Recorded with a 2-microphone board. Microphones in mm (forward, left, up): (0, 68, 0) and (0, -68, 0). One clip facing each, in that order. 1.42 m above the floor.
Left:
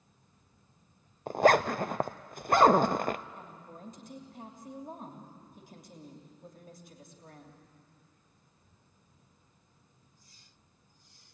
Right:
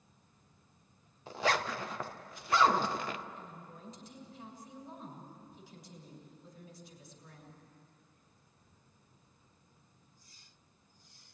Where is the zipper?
50° left (ahead or behind), 0.5 m.